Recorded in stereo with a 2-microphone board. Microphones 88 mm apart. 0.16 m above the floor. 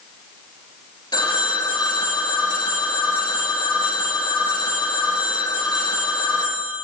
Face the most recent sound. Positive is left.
turn(degrees=60)  # may be behind; listen again after turning